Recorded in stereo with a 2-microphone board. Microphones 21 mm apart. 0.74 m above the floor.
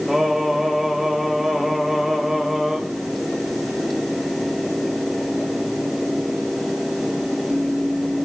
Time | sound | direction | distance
0.1 | singing | 25° right (ahead or behind) | 3 m